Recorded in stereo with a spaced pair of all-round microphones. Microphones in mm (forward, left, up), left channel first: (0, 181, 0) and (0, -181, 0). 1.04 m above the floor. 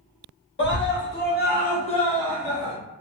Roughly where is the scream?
Left.